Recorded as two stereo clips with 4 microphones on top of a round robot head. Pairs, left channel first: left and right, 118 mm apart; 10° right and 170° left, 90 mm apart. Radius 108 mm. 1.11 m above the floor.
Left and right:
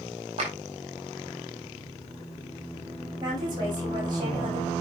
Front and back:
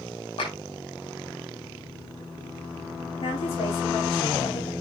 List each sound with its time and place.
0.4 s a clap: 45° right, 5.5 m
3.2 s a woman speaking: 30° right, 6 m